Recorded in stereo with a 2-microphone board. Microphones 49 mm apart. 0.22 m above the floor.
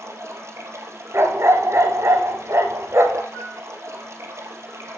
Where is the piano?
25° left (ahead or behind), 2.5 m.